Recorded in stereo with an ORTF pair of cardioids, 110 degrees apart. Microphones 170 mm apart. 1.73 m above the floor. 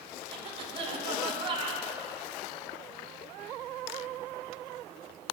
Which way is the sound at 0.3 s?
35° right.